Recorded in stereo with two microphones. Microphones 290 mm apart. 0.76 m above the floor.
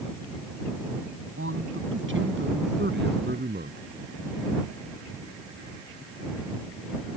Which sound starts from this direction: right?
A man speaking, at 1.4 s.